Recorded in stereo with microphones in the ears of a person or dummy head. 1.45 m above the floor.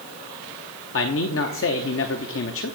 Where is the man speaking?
65° left (ahead or behind), 0.8 m.